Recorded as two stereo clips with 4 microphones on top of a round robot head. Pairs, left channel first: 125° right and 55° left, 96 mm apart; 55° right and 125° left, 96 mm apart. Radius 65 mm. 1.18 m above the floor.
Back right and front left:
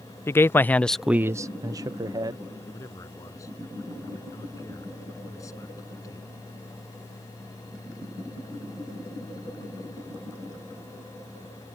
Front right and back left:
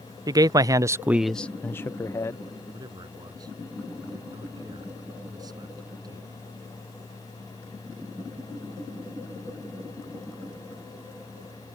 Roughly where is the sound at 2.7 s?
Behind.